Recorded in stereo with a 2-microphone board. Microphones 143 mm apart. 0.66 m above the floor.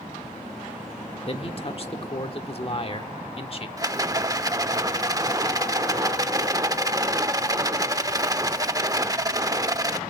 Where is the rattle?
25° right (ahead or behind), 0.7 m.